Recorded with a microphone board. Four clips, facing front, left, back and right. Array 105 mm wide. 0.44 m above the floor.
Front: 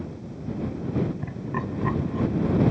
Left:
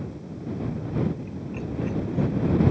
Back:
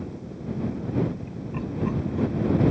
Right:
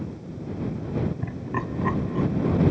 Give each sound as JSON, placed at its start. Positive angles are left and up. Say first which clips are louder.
{"t": 1.2, "sound": "laughter", "louder": "right 3 dB, front 2 dB", "azimuth_deg": -50}